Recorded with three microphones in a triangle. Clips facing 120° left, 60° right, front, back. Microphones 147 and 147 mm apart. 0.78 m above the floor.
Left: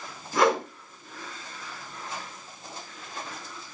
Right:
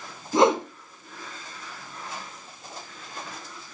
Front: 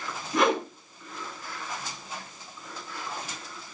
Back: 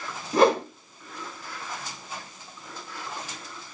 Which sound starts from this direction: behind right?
A whoosh, at 0.3 s.